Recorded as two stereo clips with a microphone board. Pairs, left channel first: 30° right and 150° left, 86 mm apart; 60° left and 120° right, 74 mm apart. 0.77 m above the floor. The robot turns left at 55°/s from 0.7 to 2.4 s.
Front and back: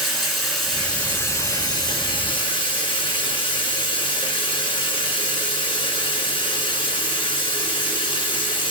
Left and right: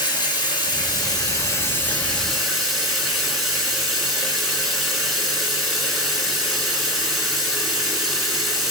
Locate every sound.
0.0 s running water: 60° left, 3 m; by 8.7 s 35° right, 3 m